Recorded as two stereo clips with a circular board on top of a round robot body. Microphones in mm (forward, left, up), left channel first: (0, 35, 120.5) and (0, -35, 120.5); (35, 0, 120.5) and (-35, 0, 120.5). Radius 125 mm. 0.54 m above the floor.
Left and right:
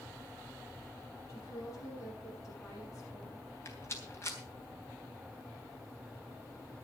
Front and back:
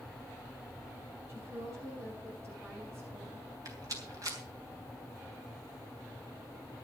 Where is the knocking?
I don't hear knocking.